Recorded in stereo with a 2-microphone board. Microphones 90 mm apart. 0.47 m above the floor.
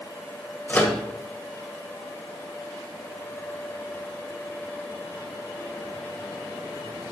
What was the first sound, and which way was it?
A microwave, 20° left (ahead or behind).